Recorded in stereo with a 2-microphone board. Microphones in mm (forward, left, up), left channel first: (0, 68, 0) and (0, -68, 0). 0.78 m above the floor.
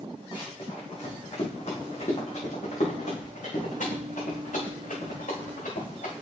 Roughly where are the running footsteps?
Left.